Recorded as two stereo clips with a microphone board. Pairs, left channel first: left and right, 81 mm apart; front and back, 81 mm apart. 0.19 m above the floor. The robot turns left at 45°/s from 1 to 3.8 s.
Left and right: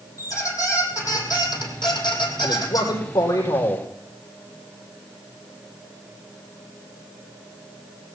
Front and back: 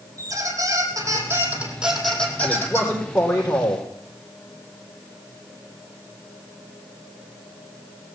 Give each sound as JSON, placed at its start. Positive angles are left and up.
{"t": 0.2, "sound": "a squeak", "azimuth_deg": 135, "distance_m": 3.5}
{"t": 2.4, "sound": "a man speaking", "azimuth_deg": 85, "distance_m": 8.0}